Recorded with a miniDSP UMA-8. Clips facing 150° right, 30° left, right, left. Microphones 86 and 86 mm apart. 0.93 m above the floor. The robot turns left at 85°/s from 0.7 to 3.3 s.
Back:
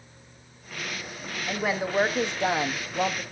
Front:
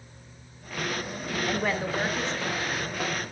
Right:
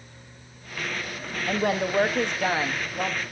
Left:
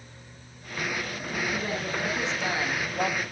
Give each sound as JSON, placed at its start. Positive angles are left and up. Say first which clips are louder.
{"t": 1.5, "sound": "a woman speaking", "louder": "back 2 dB, right 10 dB", "azimuth_deg": -50, "distance_m": 1.0}